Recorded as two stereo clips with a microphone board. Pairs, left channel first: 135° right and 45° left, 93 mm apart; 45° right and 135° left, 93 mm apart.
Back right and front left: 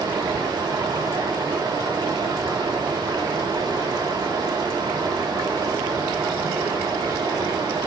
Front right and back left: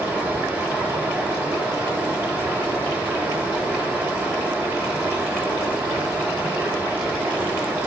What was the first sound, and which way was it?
Running water, 70° left.